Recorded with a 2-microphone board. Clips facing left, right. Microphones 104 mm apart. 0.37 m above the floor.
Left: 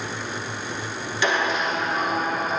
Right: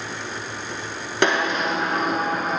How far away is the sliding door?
About 0.9 m.